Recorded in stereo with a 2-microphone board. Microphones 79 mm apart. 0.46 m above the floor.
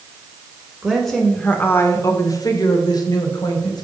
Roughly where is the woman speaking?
Centre.